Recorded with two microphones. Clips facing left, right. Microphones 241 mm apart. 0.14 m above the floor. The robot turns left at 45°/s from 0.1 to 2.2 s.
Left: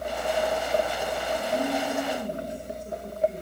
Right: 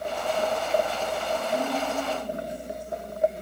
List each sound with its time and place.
1.3 s a woman speaking: 170° left, 5 m; by 3.4 s 130° left, 5 m